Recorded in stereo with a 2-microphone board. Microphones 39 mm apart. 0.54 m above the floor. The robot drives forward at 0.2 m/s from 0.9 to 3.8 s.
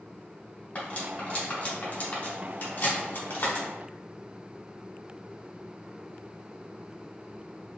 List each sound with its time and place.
0.8 s cutlery clinking: 40° left (ahead or behind), 1.4 m; by 3.7 s 60° left (ahead or behind), 1.1 m